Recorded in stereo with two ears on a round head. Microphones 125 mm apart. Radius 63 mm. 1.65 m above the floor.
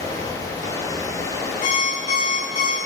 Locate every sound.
0.0 s running water: 25° left (ahead or behind), 2.5 m
1.6 s an alarm clock: 60° left (ahead or behind), 6.5 m